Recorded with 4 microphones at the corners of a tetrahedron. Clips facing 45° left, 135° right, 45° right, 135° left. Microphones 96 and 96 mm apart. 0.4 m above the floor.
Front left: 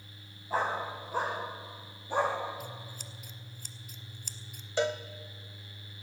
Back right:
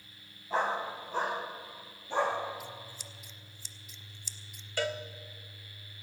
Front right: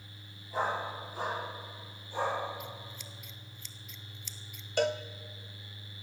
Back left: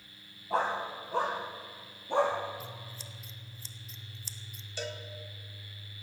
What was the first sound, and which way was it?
A dog barking, 130° left.